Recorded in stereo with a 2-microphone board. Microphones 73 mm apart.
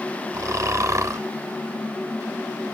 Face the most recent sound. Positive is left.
turn(degrees=-45)  # may be behind; listen again after turning